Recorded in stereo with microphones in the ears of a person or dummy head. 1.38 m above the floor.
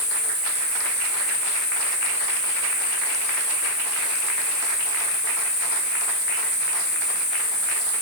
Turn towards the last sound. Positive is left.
turn(degrees=35)  # may be behind; listen again after turning